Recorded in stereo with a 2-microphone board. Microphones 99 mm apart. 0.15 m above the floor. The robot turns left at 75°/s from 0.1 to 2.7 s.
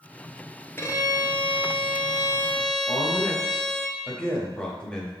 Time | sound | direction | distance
0.8 | a violin | 150° left | 1.2 m
2.9 | a woman speaking | 10° left (ahead or behind) | 3.5 m